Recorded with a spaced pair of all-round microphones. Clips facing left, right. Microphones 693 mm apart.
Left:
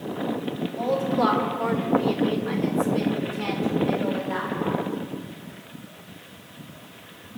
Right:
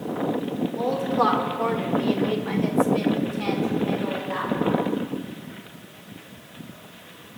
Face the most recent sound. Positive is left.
turn(degrees=25)  # may be behind; listen again after turning